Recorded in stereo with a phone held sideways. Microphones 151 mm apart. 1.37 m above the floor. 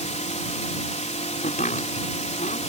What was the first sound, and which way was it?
A drone, 50° left (ahead or behind).